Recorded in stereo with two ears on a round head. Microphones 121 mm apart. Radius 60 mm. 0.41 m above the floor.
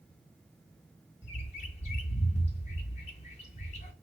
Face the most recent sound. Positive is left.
turn(degrees=50)  # may be behind; listen again after turning